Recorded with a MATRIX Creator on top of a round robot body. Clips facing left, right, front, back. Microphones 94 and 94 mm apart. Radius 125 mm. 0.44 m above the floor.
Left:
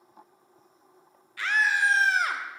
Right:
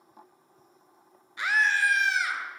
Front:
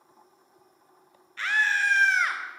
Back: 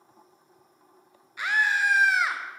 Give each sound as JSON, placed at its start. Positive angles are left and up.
{"t": 1.4, "sound": "a scream", "azimuth_deg": -125, "distance_m": 0.8}